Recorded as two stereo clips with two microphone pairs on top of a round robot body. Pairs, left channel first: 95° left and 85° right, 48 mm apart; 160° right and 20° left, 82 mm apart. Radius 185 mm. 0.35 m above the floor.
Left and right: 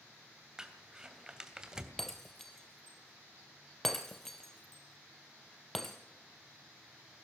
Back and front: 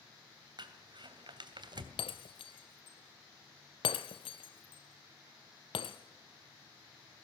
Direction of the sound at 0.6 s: 10° right.